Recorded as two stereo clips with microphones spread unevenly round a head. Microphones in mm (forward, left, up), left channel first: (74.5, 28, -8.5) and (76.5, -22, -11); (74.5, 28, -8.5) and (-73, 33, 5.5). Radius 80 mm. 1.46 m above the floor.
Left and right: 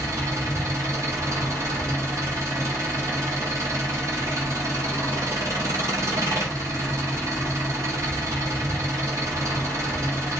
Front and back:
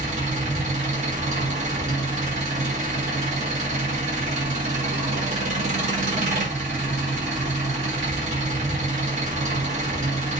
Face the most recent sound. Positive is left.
turn(degrees=-135)